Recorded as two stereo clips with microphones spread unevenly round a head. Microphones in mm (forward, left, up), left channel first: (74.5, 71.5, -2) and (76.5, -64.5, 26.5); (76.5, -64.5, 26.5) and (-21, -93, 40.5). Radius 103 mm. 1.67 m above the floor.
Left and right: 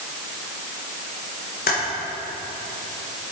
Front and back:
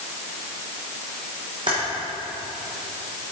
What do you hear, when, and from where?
1.7 s typing on a keyboard: 130° left, 2 m